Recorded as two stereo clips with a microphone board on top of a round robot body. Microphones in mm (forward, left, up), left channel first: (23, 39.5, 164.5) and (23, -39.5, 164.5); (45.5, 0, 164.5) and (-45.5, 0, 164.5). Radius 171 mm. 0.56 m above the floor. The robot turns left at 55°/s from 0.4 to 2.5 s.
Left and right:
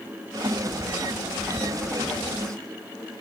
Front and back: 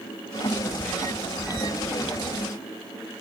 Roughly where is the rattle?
I don't hear a rattle.